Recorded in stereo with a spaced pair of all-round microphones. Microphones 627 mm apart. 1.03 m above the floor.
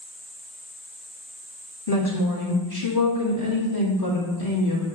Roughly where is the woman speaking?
Left.